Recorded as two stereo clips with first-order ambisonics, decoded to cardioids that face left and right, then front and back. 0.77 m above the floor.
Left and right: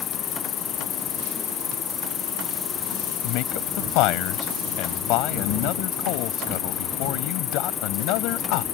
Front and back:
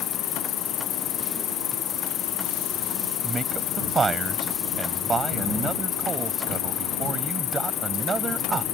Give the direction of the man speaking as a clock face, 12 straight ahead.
8 o'clock.